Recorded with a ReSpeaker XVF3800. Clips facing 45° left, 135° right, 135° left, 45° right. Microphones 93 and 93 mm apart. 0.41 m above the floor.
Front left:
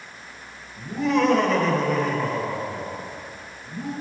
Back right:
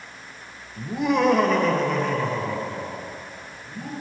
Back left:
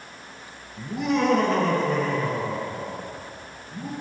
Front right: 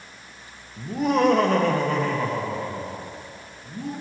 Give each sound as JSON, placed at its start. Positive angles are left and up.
{"t": 0.8, "sound": "laughter", "azimuth_deg": -90, "distance_m": 1.2}